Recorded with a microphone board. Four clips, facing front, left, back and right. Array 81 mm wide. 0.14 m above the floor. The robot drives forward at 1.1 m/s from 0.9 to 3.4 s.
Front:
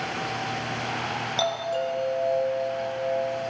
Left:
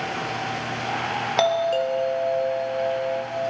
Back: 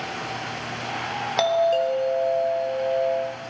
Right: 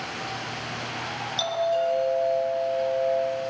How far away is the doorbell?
About 3.5 m.